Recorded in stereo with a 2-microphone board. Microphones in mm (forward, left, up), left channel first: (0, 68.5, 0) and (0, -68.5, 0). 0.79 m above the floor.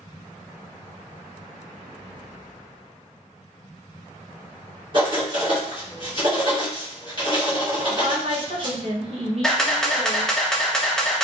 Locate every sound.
4.9 s writing: 35° right (ahead or behind), 1.3 m
7.9 s a woman speaking: 45° right (ahead or behind), 0.8 m
9.4 s a camera shutter: 5° left (ahead or behind), 0.6 m